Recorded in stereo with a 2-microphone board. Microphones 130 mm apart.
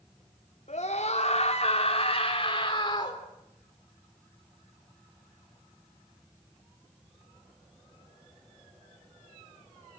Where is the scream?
65° left (ahead or behind), 3.5 m; by 3.2 s 30° left (ahead or behind), 4.5 m.